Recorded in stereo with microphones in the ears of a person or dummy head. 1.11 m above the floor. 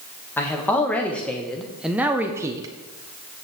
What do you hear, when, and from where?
0.4 s a man speaking: 15° left (ahead or behind), 1.4 m; by 2.7 s 20° right (ahead or behind), 0.6 m